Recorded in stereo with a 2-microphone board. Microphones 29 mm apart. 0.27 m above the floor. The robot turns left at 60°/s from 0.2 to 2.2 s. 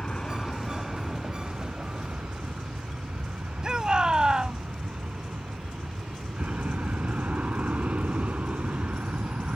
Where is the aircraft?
35° left; by 9.6 s 85° right.